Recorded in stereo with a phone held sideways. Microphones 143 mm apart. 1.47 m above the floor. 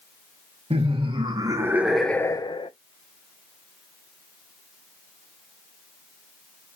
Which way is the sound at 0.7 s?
40° right (ahead or behind).